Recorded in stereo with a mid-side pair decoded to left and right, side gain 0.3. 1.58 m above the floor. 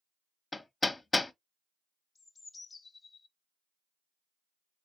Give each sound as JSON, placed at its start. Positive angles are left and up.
{"t": 0.5, "sound": "hammering", "azimuth_deg": 35, "distance_m": 0.7}
{"t": 2.1, "sound": "a bird", "azimuth_deg": 50, "distance_m": 0.7}